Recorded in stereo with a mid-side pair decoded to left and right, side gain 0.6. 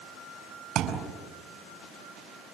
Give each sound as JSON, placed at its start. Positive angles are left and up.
{"t": 0.8, "sound": "a thud", "azimuth_deg": -55, "distance_m": 5.5}